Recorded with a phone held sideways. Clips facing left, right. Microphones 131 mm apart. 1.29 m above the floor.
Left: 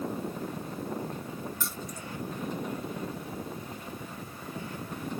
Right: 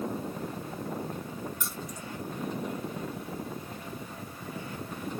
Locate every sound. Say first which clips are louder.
1.6 s keys jangling: even; 15° right (ahead or behind), 1.9 m